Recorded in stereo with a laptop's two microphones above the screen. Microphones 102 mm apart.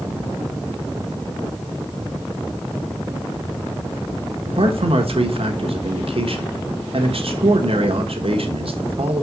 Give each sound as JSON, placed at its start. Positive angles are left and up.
{"t": 4.5, "sound": "a man speaking", "side_deg": -65, "distance_m": 1.2}